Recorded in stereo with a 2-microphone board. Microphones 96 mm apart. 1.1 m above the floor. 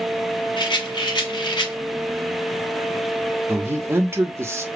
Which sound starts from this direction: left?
A rattle, at 0.6 s.